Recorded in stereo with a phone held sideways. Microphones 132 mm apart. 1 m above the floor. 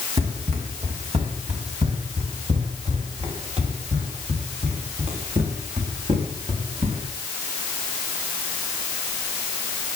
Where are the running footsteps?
55° right (ahead or behind), 5 m.